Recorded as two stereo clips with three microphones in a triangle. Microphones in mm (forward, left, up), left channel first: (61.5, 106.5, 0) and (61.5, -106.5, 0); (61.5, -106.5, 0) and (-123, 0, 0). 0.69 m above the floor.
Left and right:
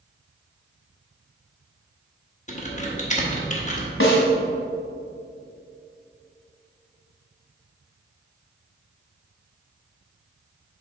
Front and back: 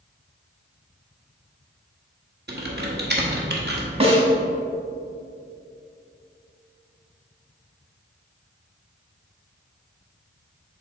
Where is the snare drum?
90° left, 1.3 m.